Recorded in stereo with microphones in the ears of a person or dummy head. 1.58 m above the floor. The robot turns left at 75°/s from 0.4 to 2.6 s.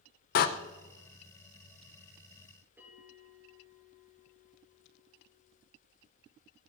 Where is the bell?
15° right (ahead or behind), 6 m.